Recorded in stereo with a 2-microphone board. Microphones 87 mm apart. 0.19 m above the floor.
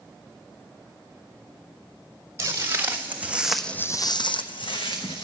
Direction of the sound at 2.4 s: 35° right (ahead or behind).